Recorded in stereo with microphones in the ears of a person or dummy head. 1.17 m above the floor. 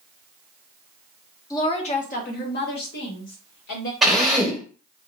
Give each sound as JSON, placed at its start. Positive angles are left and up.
{"t": 1.5, "sound": "a woman speaking", "side_deg": 15, "distance_m": 0.7}
{"t": 4.0, "sound": "a drill", "side_deg": 0, "distance_m": 1.1}